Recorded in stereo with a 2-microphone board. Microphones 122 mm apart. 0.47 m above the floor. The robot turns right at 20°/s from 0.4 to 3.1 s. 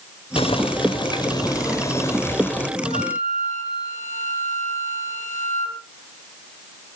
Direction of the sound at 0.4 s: 120° left.